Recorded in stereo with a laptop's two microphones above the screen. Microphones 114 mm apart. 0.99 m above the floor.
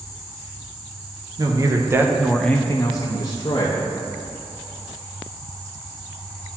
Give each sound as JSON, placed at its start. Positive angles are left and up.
{"t": 1.4, "sound": "a man speaking", "side_deg": -35, "distance_m": 0.9}